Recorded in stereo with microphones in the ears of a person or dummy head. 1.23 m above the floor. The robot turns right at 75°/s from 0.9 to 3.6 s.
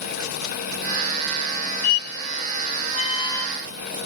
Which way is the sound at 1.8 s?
50° left (ahead or behind).